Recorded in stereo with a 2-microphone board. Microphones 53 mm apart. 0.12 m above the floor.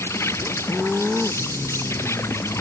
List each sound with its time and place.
0.0 s an insect: 60° left (ahead or behind)